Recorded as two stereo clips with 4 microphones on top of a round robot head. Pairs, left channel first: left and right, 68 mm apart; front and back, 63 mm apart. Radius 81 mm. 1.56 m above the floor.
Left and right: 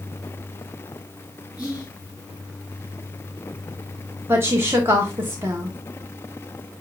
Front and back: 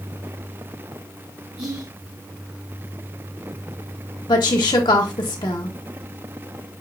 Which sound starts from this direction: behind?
Whispering, at 1.6 s.